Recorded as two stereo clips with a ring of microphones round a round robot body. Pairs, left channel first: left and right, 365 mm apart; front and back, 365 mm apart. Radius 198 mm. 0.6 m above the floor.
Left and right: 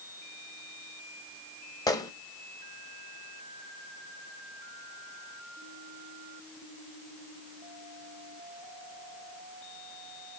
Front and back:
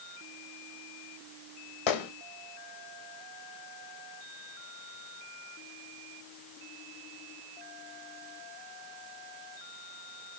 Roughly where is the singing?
No singing in this recording.